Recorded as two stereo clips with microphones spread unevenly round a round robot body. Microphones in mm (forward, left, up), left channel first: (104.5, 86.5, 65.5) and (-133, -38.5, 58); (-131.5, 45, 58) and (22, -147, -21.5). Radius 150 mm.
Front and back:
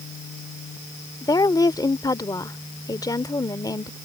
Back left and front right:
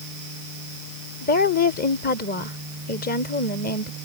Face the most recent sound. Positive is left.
turn(degrees=85)